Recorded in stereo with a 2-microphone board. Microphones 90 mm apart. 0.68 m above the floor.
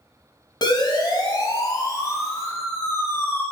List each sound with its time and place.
0.6 s a siren: 50° left (ahead or behind), 4 m; by 3.4 s 20° left (ahead or behind), 4 m